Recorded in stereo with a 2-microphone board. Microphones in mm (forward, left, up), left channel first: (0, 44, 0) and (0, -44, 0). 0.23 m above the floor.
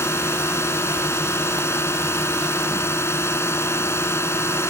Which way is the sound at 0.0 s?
30° left (ahead or behind).